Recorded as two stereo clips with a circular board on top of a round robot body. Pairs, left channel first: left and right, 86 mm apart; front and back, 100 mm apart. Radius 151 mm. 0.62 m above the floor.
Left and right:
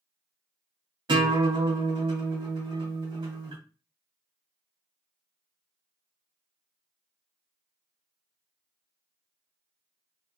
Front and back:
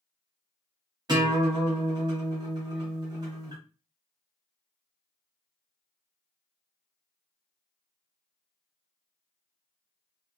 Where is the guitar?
130° right, 1.8 m.